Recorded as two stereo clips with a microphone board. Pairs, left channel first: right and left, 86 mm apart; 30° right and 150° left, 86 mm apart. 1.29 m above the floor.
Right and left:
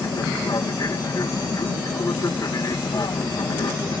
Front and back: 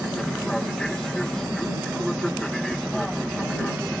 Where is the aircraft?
110° right.